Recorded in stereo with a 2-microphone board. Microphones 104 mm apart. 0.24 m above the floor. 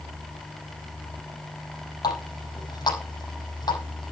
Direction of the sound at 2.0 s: 40° left (ahead or behind).